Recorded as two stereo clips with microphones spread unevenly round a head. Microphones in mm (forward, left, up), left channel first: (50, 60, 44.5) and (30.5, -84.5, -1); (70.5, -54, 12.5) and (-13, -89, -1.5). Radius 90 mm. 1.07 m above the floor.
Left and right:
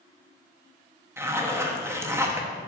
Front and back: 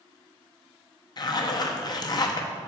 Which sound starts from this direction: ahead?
A zipper, at 1.2 s.